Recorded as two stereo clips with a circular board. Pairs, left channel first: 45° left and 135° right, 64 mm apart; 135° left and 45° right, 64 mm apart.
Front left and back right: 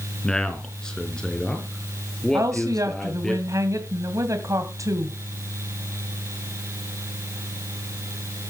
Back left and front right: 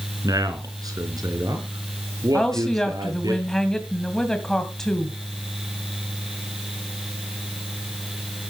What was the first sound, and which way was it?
A man speaking, 35° right.